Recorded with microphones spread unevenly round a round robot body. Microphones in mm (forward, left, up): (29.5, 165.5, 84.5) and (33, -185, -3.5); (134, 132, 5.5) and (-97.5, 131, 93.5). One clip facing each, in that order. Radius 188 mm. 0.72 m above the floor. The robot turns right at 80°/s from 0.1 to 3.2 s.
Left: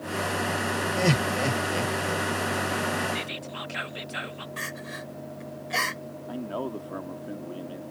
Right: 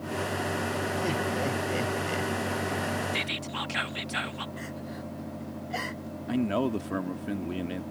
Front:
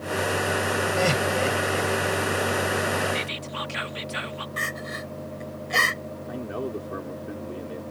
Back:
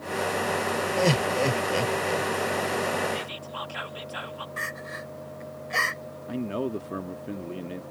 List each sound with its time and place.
1.0 s laughter: 105° left; by 2.3 s 145° right
3.1 s whispering: 40° right; by 4.5 s 35° right
4.6 s crying: 45° left
6.3 s a man speaking: 110° right